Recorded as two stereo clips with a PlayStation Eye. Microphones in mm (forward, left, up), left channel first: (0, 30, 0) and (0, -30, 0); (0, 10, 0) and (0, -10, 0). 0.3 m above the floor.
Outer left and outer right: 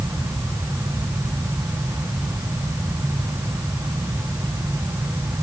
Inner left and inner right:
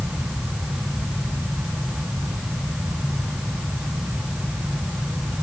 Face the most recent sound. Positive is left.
No sound to turn to.